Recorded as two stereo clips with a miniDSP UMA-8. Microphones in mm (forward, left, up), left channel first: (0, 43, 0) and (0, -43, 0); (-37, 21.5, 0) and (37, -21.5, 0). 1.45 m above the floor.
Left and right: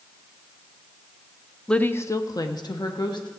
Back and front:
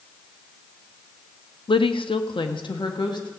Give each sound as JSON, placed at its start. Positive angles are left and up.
{"t": 1.7, "sound": "a woman speaking", "azimuth_deg": 170, "distance_m": 0.5}